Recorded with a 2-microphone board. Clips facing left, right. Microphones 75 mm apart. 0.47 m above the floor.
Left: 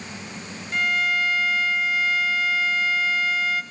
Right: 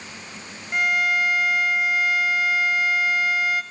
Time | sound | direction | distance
0.7 | a violin | 20° right (ahead or behind) | 0.6 m